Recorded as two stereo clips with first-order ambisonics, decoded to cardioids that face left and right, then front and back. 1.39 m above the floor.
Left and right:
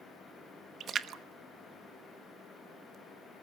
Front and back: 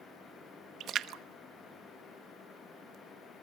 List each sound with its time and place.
0.8 s a splash: 140° right, 0.9 m